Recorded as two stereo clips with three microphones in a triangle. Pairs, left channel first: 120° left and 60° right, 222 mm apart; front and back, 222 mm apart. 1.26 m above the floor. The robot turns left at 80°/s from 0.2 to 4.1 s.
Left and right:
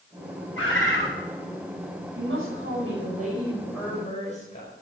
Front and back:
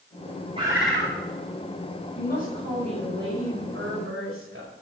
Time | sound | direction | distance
0.6 | a bird | 115° left | 7 m
2.1 | a woman speaking | 25° right | 5.5 m